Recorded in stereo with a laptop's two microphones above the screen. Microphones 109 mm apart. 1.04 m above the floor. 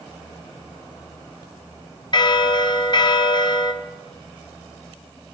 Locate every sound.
2.1 s a bell: 45° left (ahead or behind), 0.6 m